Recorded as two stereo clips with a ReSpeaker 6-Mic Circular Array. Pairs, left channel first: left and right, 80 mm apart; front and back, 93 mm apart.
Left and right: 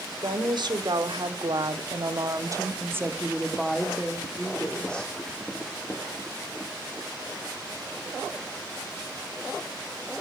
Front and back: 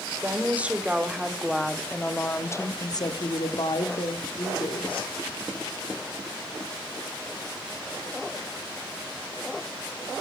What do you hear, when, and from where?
0.2 s a woman speaking: 110° right, 1.7 m; by 5.2 s 15° left, 1.8 m